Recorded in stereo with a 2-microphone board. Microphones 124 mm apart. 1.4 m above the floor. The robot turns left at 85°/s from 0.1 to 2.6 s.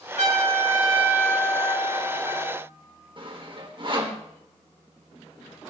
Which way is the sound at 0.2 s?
95° right.